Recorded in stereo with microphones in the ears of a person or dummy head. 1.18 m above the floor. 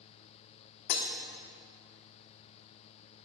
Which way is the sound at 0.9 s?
55° left (ahead or behind).